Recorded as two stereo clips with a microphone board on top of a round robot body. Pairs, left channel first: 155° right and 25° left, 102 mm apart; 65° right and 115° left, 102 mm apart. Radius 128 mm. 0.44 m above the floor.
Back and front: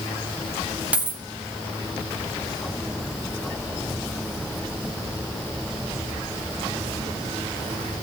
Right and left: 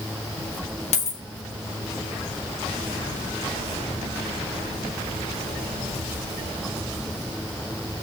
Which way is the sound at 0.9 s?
55° right.